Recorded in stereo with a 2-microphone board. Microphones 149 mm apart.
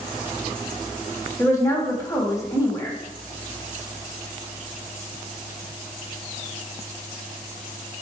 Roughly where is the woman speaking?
Left.